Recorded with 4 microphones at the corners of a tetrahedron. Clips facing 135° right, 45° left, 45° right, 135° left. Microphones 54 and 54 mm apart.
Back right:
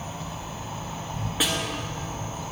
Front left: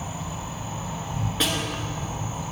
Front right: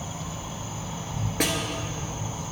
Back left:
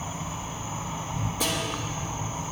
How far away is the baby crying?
I don't hear a baby crying.